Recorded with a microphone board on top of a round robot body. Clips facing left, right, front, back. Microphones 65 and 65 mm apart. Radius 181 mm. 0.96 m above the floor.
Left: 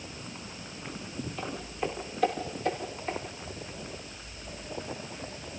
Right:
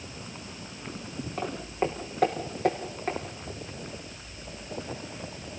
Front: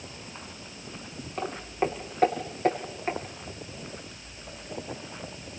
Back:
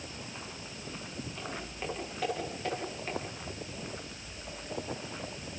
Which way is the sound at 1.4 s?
50° right.